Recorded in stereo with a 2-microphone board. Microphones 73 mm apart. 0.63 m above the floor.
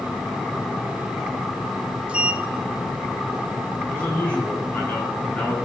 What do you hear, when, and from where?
2.1 s a sliding door: 15° right (ahead or behind), 1.2 m
3.9 s a man speaking: 20° left (ahead or behind), 5.5 m